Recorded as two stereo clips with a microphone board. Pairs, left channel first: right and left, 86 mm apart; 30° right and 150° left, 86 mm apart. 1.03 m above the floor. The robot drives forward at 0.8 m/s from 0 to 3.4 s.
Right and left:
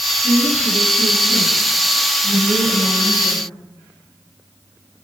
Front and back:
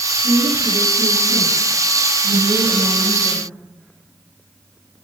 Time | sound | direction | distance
0.2 | a woman speaking | 75° left | 10 m